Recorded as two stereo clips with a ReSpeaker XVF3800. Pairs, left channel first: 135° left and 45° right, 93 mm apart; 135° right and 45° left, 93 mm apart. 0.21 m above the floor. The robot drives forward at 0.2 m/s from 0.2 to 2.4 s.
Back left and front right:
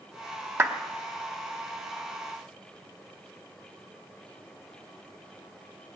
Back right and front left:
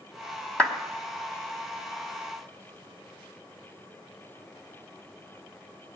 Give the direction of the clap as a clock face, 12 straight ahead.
2 o'clock.